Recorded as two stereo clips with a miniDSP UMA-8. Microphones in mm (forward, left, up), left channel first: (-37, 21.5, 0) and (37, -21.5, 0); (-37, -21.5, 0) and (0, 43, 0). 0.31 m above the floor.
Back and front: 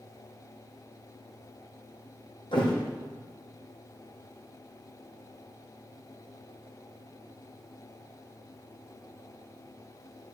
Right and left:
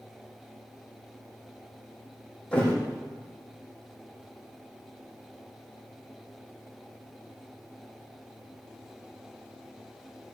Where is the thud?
165° left, 3.5 m.